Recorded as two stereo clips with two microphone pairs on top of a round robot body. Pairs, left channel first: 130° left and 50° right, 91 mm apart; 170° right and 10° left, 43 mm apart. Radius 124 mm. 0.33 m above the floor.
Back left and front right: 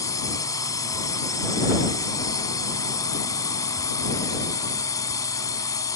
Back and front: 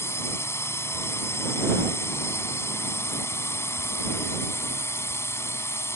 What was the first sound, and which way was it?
A drone, straight behind.